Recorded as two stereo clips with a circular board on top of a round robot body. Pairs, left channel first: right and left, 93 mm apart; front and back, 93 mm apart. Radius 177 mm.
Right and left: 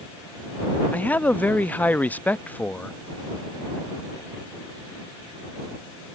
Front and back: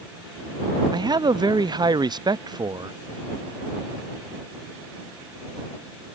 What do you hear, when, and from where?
0.9 s a man speaking: 160° right